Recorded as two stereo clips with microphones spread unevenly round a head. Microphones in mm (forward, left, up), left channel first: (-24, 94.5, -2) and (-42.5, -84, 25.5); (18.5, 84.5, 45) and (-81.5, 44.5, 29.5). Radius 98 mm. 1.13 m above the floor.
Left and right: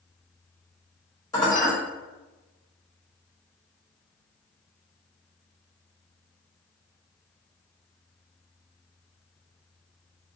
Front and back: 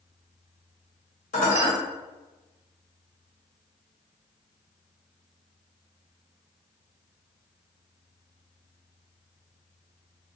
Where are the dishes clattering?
10° left, 1.2 m.